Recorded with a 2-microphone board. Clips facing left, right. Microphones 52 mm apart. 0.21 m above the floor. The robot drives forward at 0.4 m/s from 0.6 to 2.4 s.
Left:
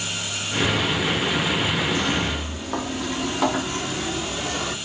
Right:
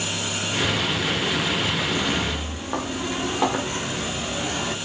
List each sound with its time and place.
1.9 s footsteps: 15° right (ahead or behind), 0.7 m; by 4.8 s 10° right (ahead or behind), 2.5 m